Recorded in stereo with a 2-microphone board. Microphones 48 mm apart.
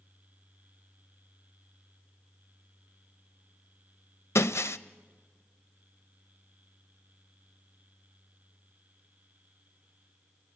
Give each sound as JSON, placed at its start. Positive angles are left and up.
{"t": 4.3, "sound": "breaking glass", "side_deg": 70, "distance_m": 0.6}